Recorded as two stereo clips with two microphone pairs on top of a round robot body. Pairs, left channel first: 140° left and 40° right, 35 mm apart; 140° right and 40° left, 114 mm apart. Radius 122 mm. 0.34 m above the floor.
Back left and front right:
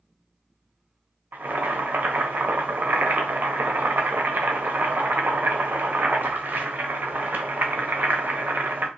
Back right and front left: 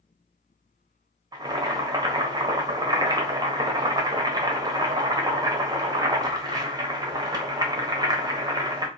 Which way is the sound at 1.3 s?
15° right.